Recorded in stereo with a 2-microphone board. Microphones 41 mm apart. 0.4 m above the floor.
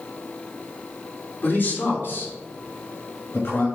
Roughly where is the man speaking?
Left.